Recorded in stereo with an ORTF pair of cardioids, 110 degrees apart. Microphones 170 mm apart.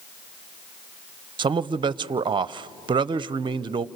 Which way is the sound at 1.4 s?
30° right.